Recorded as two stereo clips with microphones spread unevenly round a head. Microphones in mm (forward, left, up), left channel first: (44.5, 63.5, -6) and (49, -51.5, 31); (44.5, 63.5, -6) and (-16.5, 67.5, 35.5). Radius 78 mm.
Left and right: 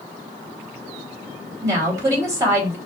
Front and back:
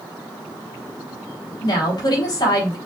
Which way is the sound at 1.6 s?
25° right.